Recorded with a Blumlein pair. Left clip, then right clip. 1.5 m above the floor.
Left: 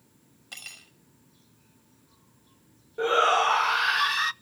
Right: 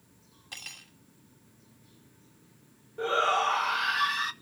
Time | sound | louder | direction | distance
0.5 | cutlery clinking | even | 10° left | 5 m
3.0 | a shout | left 4 dB | 15° left | 0.8 m